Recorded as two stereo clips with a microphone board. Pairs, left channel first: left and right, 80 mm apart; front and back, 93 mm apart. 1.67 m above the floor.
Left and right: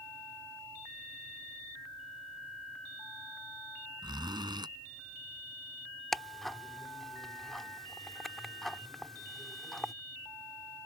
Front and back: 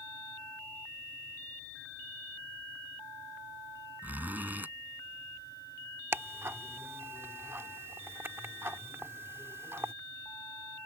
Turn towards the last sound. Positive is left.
turn(degrees=175)